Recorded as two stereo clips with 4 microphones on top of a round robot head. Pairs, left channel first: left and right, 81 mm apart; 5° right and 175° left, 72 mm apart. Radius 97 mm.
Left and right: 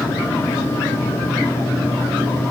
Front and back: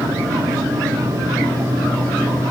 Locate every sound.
Only background noise.